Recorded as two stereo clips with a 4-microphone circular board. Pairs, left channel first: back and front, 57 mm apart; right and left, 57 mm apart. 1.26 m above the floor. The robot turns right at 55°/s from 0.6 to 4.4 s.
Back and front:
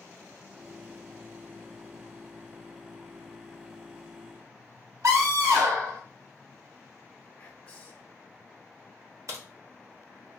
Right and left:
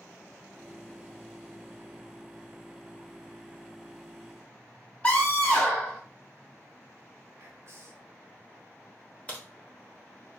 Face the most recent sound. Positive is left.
turn(degrees=-25)